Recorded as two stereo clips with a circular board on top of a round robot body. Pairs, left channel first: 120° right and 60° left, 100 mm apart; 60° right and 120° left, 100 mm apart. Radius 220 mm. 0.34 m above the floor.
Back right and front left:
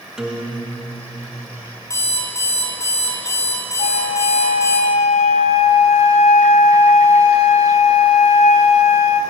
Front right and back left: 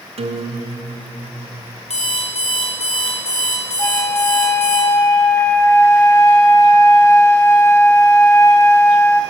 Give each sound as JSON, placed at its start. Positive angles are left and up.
{"t": 0.2, "sound": "a guitar", "azimuth_deg": 145, "distance_m": 1.3}
{"t": 1.9, "sound": "an alarm clock", "azimuth_deg": -55, "distance_m": 3.5}
{"t": 3.8, "sound": "a flute", "azimuth_deg": -130, "distance_m": 0.7}